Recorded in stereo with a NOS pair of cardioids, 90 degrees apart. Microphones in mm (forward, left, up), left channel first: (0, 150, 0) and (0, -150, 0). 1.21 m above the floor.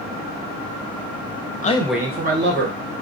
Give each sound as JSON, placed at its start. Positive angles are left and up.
{"t": 1.6, "sound": "a man speaking", "azimuth_deg": 25, "distance_m": 0.6}